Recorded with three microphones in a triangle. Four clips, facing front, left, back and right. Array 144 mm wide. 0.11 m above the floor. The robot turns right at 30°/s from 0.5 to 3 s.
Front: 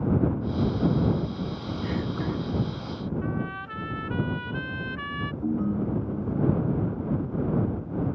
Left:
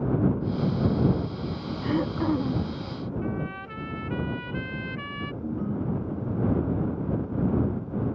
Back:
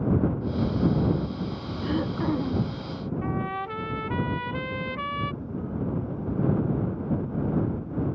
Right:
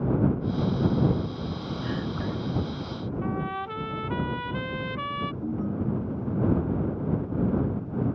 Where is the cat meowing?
No cat meowing in this recording.